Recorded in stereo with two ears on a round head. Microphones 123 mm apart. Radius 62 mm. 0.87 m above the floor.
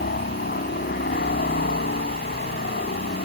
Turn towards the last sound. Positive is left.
turn(degrees=75)  # may be behind; listen again after turning